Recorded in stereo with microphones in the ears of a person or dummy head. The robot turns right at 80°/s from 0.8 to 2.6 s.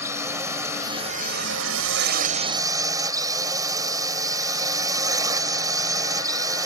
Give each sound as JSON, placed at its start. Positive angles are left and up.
{"t": 0.0, "sound": "a drone", "azimuth_deg": -165}